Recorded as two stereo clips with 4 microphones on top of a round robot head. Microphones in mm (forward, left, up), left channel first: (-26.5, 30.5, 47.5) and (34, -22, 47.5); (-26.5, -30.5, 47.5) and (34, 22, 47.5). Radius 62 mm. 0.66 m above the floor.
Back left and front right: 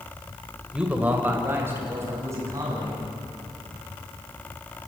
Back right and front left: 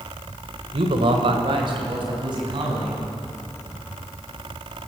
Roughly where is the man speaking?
Ahead left.